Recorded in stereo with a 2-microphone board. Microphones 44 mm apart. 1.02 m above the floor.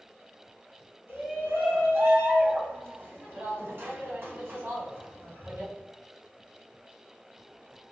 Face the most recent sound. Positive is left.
turn(degrees=-60)  # may be behind; listen again after turning